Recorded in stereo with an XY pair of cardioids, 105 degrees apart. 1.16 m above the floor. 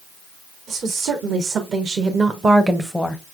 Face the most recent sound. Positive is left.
turn(degrees=25)